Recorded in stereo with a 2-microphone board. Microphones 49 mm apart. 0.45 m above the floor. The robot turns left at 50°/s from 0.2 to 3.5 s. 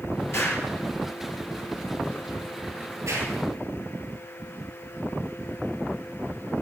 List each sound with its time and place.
0.3 s an explosion: 60° left (ahead or behind), 3.5 m; by 3.3 s 90° right, 3.5 m